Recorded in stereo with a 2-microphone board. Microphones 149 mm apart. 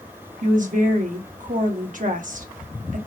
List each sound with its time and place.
0.4 s a woman speaking: 60° right (ahead or behind), 1.3 m